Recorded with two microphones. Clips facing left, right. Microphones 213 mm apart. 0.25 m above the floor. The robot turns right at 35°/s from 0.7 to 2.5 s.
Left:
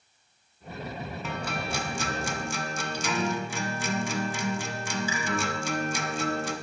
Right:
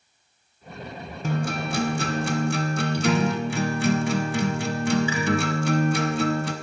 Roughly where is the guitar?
Behind right.